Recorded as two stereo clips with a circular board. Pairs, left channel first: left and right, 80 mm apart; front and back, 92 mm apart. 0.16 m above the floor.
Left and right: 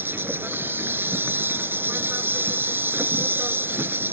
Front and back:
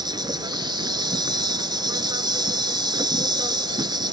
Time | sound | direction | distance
0.0 | an insect | 150° right | ?